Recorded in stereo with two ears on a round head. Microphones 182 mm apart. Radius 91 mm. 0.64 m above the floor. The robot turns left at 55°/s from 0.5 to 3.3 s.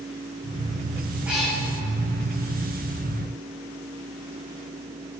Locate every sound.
1.2 s a cat meowing: 10° right (ahead or behind), 6.5 m; by 1.6 s 10° left (ahead or behind), 6.5 m